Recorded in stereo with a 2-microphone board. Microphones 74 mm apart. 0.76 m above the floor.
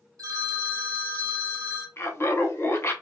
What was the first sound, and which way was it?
A phone ringing, 45° right (ahead or behind).